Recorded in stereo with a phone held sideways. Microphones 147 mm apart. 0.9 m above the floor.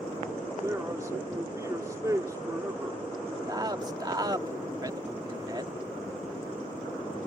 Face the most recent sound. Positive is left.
turn(degrees=-30)  # may be behind; listen again after turning